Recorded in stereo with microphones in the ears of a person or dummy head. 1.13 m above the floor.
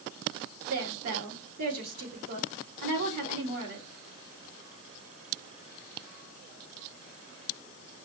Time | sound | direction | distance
0.7 | a woman speaking | 75° right (ahead or behind) | 2.5 m